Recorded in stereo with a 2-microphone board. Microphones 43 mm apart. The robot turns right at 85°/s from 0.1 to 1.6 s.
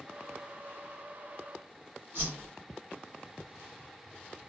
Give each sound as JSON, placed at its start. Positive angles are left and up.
{"t": 2.1, "sound": "a whoosh", "side_deg": -60, "distance_m": 1.5}